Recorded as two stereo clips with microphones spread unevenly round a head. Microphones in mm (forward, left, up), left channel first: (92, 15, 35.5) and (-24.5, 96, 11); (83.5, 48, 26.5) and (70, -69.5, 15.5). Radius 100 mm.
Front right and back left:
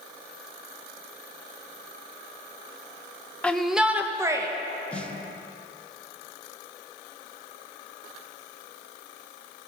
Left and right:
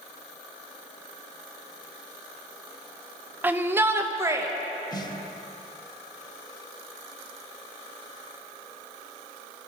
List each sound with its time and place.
3.4 s a shout: 125° right, 0.8 m; by 4.5 s 160° right, 1.2 m
4.9 s a snare drum: 40° left, 0.8 m